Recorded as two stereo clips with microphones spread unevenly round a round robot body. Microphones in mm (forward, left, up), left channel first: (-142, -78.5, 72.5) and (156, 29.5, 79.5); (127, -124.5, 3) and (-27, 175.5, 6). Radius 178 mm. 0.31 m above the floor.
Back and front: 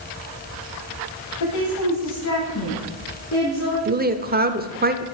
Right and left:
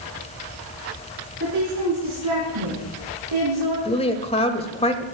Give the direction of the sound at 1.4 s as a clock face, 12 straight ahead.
6 o'clock.